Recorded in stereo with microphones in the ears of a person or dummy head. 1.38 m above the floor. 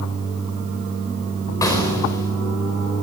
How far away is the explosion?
About 4.5 m.